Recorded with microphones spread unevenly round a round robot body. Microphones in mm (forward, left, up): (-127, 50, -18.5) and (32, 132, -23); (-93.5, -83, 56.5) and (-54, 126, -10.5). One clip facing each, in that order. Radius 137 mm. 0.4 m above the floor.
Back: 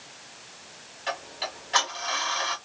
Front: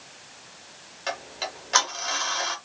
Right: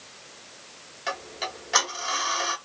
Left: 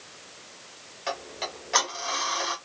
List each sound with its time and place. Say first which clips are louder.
1.1 s ticking: front 1 dB, left 1 dB; straight ahead, 0.8 m